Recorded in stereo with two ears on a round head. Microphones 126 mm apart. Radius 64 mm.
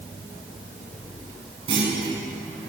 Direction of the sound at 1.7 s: 40° right (ahead or behind).